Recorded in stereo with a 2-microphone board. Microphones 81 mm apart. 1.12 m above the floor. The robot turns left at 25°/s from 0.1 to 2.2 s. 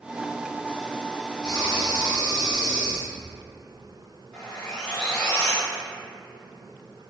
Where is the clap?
I don't hear a clap.